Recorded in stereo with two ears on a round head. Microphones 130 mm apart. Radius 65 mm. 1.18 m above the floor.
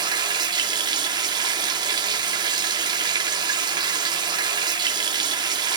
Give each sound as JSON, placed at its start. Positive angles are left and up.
{"t": 0.0, "sound": "running water", "side_deg": -30, "distance_m": 0.8}